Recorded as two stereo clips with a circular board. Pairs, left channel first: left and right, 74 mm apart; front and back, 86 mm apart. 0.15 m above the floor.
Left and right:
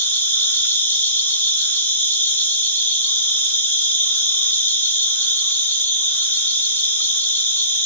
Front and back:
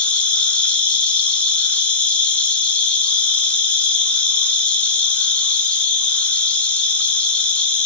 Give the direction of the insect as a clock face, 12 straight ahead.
10 o'clock.